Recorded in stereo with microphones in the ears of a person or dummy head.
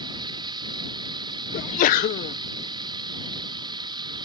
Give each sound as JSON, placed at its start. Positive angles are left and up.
{"t": 0.0, "sound": "running water", "side_deg": -30}
{"t": 1.5, "sound": "a sneeze", "side_deg": 45}